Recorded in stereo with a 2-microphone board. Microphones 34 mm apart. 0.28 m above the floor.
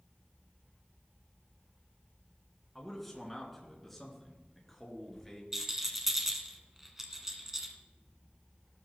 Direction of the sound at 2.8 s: 5° left (ahead or behind).